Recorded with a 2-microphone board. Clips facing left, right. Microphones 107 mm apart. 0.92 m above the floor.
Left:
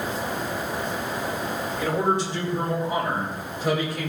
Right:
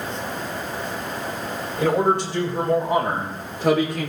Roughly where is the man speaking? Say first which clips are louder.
Right 5 dB; right.